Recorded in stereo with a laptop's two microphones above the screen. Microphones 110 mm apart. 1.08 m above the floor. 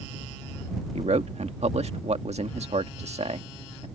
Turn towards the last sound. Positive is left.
turn(degrees=-85)